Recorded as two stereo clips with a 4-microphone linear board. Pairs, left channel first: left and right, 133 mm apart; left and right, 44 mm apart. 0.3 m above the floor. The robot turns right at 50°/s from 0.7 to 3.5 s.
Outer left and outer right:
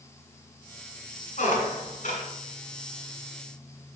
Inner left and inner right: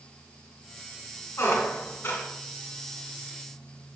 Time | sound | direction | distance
1.4 | a squeak | 80° left | 2.5 m